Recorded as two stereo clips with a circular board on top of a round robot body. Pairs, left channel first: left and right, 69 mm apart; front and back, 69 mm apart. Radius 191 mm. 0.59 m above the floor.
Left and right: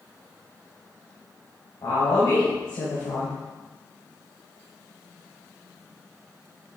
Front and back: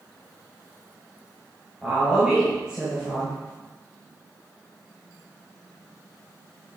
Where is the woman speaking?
105° left, 4 m.